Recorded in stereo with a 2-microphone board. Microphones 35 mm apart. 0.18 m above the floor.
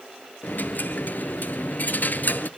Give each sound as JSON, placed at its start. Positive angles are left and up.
{"t": 0.4, "sound": "a dropped coin", "side_deg": 55, "distance_m": 0.6}